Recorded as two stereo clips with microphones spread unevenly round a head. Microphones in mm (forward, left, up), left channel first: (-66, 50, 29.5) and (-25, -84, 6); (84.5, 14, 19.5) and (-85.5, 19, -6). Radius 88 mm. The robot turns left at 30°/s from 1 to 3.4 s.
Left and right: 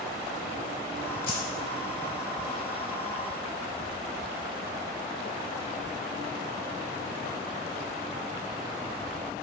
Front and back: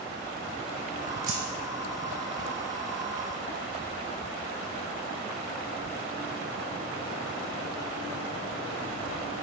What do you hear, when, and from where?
1.3 s keys jangling: 135° left, 0.7 m; by 1.4 s 125° left, 0.7 m